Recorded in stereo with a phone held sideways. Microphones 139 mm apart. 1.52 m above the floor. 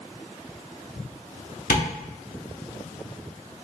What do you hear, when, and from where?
1.7 s tapping: 70° left (ahead or behind), 0.8 m